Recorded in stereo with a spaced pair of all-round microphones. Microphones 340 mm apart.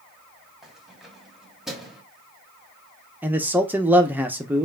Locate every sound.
0.6 s keys jangling: centre (ahead or behind), 1.5 m
3.2 s a man speaking: 5° right (ahead or behind), 0.6 m